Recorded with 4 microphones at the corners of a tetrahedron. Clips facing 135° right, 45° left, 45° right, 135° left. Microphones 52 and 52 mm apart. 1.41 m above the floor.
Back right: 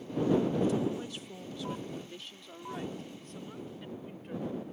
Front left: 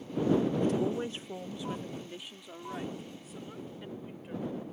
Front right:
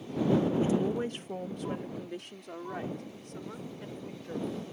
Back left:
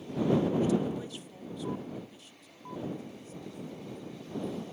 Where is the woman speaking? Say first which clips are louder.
Front left 1 dB, front right 1 dB; 15° left; by 4.5 s 40° right.